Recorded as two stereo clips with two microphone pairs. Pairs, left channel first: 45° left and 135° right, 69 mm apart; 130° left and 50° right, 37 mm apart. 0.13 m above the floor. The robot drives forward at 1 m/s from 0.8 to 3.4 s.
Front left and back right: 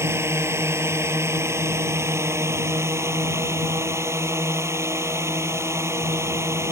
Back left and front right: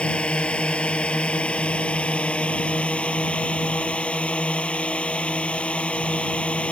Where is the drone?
175° right.